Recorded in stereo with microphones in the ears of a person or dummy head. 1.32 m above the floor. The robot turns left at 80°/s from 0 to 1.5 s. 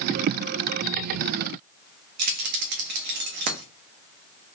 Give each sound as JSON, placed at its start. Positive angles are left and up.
{"t": 2.2, "sound": "keys jangling", "side_deg": -50, "distance_m": 0.8}